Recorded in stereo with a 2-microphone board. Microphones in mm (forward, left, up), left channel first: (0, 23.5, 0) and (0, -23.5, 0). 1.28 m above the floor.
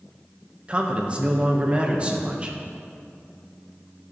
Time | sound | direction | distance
0.7 | a man speaking | 25° right (ahead or behind) | 1.3 m